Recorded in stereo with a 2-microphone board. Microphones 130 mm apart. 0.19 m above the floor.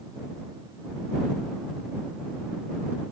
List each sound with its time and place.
Only background noise.